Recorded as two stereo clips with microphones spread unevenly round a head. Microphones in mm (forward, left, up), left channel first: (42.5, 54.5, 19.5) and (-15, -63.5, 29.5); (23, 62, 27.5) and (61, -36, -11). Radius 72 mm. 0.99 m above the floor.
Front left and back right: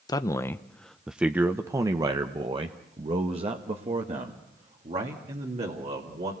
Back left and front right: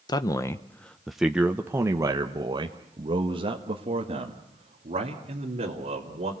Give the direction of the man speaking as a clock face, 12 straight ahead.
10 o'clock.